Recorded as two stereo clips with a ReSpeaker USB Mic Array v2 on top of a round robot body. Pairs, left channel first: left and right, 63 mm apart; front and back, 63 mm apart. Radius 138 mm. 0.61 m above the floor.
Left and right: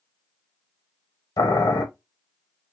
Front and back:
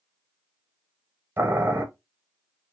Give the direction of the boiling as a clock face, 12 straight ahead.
8 o'clock.